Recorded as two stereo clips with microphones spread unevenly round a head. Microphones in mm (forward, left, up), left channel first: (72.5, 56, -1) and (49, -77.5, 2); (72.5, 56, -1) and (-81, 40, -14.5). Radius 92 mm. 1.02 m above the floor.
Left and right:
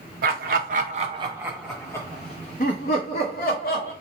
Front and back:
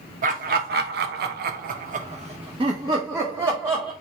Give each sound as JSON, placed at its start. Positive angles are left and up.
{"t": 0.2, "sound": "laughter", "azimuth_deg": -125, "distance_m": 1.0}